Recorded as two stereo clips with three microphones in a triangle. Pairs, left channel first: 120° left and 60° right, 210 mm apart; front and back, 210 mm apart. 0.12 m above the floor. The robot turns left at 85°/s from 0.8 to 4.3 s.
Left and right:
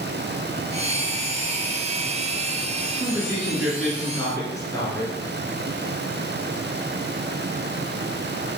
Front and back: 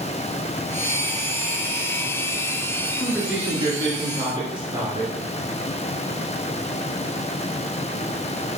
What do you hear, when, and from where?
3.0 s a man speaking: 85° right, 1.2 m; by 5.1 s 165° left, 1.2 m